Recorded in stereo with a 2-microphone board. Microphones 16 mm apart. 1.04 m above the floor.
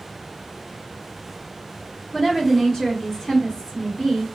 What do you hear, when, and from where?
2.1 s a woman speaking: 30° left (ahead or behind), 2.5 m